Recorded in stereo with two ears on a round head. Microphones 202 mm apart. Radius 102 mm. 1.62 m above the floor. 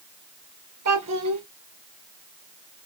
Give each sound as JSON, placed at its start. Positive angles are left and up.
{"t": 0.8, "sound": "a child speaking", "side_deg": -80, "distance_m": 2.5}